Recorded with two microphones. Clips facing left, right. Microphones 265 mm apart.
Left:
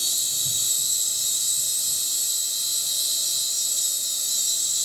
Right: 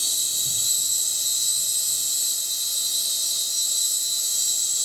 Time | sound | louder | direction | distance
0.0 | an insect | even | 15° left (ahead or behind) | 10 m